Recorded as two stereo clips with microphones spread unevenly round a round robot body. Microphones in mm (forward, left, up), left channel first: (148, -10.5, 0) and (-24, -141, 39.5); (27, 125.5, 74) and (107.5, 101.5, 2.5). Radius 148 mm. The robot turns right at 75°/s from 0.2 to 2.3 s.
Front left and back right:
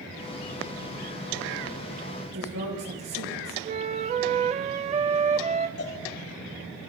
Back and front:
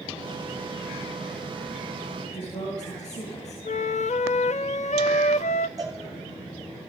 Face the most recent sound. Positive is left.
turn(degrees=30)